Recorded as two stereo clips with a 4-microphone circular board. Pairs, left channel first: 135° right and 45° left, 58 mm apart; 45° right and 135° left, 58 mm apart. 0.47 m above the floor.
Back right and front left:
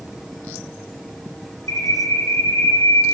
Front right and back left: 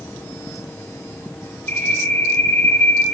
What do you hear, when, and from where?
1.7 s a bird: 105° right, 9.5 m